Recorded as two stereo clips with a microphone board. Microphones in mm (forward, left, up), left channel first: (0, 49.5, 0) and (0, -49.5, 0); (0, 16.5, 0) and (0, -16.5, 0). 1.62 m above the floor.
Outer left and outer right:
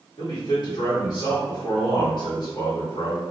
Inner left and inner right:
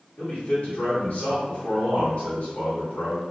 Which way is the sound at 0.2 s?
50° left (ahead or behind).